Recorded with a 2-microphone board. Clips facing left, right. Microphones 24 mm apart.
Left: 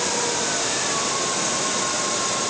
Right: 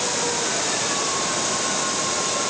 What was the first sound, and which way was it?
Only background noise.